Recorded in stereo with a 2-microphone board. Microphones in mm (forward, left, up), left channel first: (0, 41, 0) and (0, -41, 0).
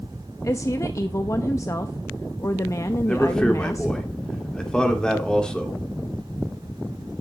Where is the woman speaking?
40° left (ahead or behind), 0.8 m.